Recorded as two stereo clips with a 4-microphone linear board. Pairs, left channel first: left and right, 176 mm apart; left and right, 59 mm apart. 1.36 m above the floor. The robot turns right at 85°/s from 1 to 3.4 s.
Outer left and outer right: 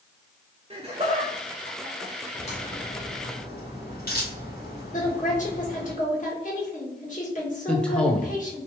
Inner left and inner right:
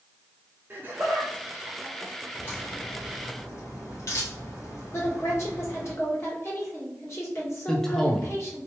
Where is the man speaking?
5° left (ahead or behind), 1.0 m.